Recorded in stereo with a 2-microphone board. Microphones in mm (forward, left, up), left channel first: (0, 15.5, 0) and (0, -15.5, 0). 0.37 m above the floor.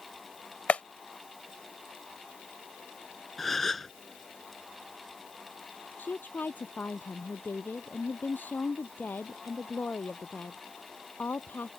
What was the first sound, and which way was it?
A clap, 50° left (ahead or behind).